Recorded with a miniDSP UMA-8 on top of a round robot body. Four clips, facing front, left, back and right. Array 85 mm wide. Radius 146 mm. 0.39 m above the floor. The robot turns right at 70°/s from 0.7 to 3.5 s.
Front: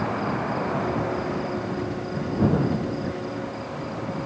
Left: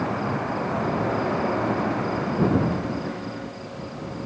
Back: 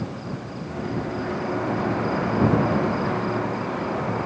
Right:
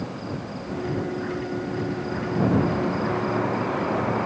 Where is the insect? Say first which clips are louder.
Left 6 dB, front 6 dB; 45° left; by 4.3 s 120° right.